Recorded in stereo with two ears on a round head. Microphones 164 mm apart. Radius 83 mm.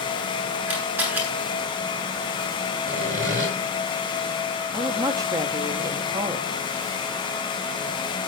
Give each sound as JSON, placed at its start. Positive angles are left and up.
{"t": 0.7, "sound": "a camera shutter", "side_deg": -10, "distance_m": 8.5}
{"t": 2.9, "sound": "sawing", "side_deg": -50, "distance_m": 6.0}
{"t": 4.7, "sound": "a woman speaking", "side_deg": -20, "distance_m": 2.0}